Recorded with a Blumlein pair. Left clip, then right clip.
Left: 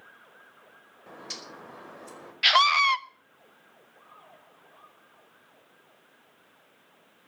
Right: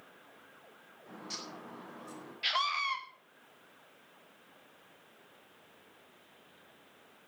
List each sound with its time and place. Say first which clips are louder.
1.1 s a bird: left 3 dB; 60° left, 5 m
2.4 s a scream: left 12 dB; 30° left, 1.0 m